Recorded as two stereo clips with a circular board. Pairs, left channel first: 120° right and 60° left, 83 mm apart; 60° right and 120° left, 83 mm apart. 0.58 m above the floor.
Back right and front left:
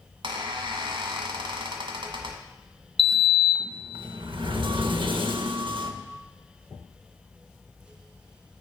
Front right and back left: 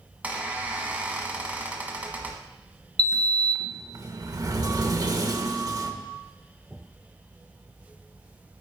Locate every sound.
0.2 s a squeak: 45° left, 1.4 m
3.0 s a sliding door: 75° left, 0.7 m